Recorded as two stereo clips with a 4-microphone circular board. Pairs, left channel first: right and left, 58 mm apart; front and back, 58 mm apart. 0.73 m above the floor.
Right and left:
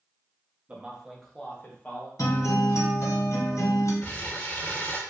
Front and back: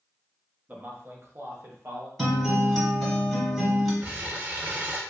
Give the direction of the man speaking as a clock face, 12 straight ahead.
7 o'clock.